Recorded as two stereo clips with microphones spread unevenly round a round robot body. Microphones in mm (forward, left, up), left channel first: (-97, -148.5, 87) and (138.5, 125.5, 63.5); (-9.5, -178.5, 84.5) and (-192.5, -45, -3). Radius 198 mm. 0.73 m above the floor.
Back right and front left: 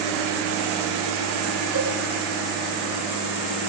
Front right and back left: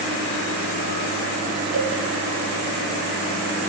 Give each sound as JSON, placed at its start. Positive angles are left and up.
{"t": 1.7, "sound": "a cowbell", "azimuth_deg": 175, "distance_m": 10.0}